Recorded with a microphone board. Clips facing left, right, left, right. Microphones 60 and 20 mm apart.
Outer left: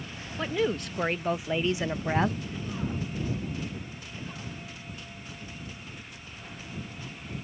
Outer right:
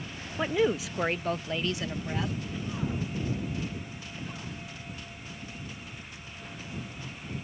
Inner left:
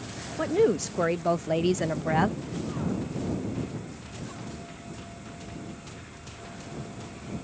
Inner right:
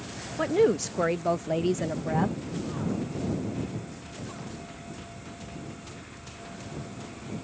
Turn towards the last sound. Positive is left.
turn(degrees=50)  # may be behind; listen again after turning